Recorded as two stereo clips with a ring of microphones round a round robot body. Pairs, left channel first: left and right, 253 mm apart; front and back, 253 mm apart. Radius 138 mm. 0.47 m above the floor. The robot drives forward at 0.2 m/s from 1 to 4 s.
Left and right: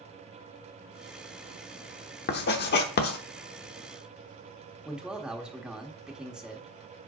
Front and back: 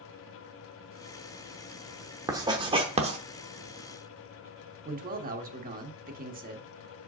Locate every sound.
2.3 s writing: 110° left, 0.8 m; by 3.2 s 125° left, 0.9 m
4.8 s a man speaking: 175° right, 1.1 m